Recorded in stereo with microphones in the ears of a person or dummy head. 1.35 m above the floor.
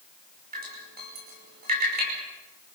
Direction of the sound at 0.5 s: 40° right (ahead or behind).